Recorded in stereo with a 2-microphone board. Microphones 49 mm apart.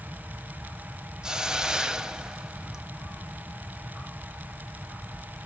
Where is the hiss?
15° right (ahead or behind), 0.7 m.